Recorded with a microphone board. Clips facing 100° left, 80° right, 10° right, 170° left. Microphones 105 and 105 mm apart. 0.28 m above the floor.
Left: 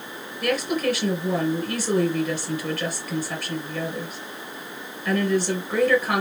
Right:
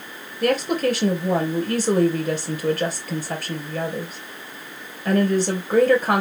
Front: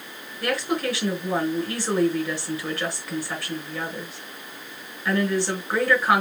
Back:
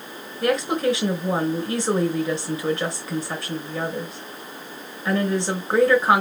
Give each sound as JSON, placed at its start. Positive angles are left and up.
{"t": 0.4, "sound": "a woman speaking", "azimuth_deg": -120, "distance_m": 4.0}